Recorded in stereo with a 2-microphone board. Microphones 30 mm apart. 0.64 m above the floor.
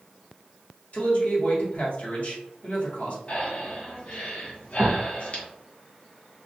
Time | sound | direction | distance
0.9 | a man speaking | 55° left (ahead or behind) | 1.1 m
3.3 | breathing | 45° left (ahead or behind) | 0.9 m